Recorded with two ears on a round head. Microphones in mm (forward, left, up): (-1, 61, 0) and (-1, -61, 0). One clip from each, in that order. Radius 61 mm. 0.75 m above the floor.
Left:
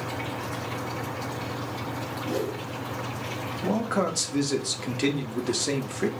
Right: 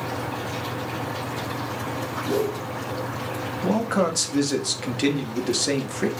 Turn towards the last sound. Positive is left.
turn(degrees=-5)  # may be behind; listen again after turning